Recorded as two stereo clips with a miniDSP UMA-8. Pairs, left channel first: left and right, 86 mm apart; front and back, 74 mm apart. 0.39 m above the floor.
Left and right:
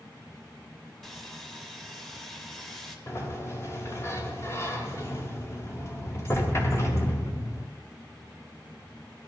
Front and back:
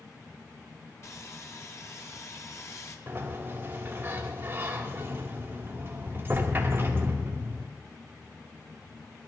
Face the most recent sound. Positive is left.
turn(degrees=130)